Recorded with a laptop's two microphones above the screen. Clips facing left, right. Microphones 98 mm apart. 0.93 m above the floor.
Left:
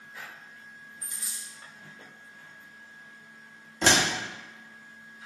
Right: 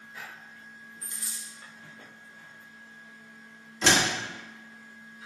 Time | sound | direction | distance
1.0 | a dropped coin | 20° left (ahead or behind) | 0.7 m
3.8 | a door slam | 55° left (ahead or behind) | 1.3 m